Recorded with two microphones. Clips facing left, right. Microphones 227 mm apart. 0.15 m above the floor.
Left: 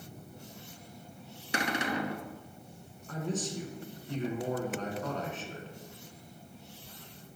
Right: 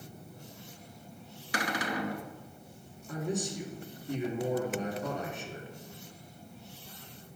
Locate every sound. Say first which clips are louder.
1.5 s a cupboard door: left 1 dB; 25° left (ahead or behind), 0.7 m
3.1 s a man speaking: right 1 dB; 10° right (ahead or behind), 1.6 m